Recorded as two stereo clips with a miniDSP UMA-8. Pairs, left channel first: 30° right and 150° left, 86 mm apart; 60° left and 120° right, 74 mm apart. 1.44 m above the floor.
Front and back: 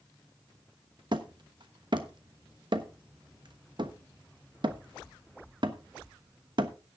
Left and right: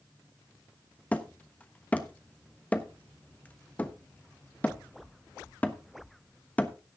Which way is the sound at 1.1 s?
130° left.